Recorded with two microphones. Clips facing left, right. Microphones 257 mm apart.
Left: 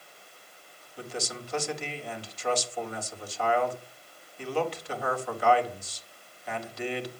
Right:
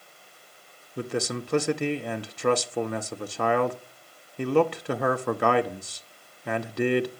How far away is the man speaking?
About 1.1 m.